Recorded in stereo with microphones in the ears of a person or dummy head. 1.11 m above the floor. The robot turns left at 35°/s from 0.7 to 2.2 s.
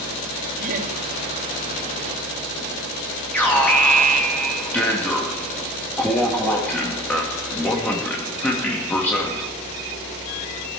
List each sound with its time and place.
0.6 s laughter: 45° right (ahead or behind), 2.5 m; by 0.9 s 50° right (ahead or behind), 2.5 m
3.3 s an alarm: 10° left (ahead or behind), 2.0 m